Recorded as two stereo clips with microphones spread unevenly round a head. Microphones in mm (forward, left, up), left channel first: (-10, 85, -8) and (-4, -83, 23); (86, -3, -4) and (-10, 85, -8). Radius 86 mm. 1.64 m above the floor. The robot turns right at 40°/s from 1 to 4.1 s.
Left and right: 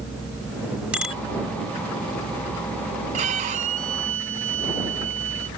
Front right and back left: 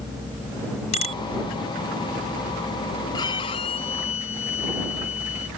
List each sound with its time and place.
0.9 s a bicycle bell: 5° right; by 1.2 s straight ahead
3.1 s a violin: 95° right; by 5.5 s 55° right